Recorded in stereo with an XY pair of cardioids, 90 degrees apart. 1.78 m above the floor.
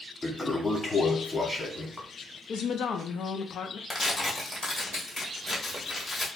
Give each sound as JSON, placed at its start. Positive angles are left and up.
{"t": 0.2, "sound": "a toilet flushing", "azimuth_deg": 10, "distance_m": 1.0}
{"t": 2.5, "sound": "a woman speaking", "azimuth_deg": 65, "distance_m": 0.5}
{"t": 3.9, "sound": "tearing paper", "azimuth_deg": 30, "distance_m": 1.1}